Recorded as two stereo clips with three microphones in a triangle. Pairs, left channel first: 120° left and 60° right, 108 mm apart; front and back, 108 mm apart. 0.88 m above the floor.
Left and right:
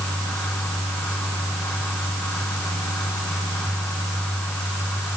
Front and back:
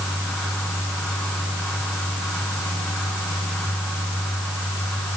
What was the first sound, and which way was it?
Only background noise.